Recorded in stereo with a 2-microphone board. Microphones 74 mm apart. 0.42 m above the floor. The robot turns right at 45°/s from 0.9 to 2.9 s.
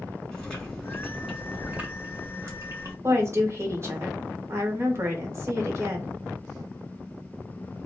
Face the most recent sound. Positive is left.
turn(degrees=-35)  # may be behind; listen again after turning